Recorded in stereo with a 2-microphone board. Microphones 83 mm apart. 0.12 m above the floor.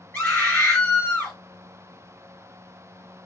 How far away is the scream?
About 2 m.